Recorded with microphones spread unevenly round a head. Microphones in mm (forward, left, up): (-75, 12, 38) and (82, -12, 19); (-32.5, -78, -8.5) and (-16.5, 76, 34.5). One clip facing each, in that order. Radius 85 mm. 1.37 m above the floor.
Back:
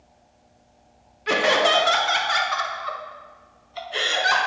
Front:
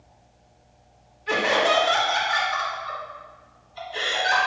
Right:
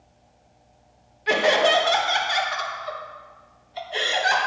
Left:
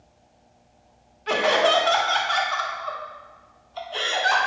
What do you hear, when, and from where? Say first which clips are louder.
1.3 s laughter: back 2 dB, right 1 dB; 170° right, 1.3 m